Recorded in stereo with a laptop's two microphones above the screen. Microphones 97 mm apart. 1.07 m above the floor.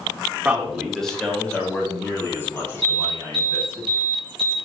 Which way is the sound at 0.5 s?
15° right (ahead or behind).